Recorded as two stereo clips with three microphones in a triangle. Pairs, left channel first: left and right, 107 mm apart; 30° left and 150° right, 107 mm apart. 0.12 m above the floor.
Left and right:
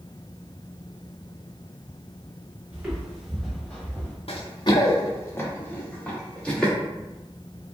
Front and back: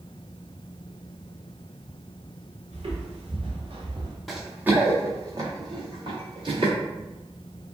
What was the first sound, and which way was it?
Footsteps, 170° right.